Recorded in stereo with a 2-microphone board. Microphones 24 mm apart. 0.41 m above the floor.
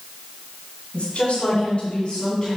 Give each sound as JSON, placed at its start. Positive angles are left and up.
{"t": 0.9, "sound": "a woman speaking", "side_deg": 65, "distance_m": 3.5}